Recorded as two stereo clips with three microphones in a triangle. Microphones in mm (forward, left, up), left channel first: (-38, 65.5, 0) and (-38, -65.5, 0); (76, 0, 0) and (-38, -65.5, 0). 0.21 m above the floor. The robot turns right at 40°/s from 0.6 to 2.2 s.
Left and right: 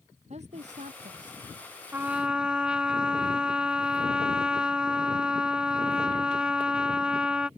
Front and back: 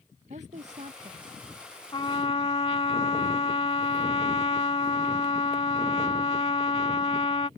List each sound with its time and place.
0.3 s a woman speaking: 125° right; by 1.4 s 90° right
1.9 s a trumpet: 20° right; by 7.5 s 10° right